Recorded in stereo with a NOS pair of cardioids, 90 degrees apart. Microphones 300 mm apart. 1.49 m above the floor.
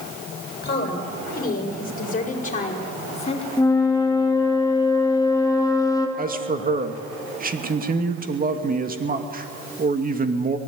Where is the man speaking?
30° right, 2.5 m.